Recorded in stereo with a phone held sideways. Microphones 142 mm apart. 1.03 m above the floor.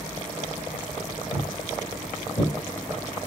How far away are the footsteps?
About 1.8 m.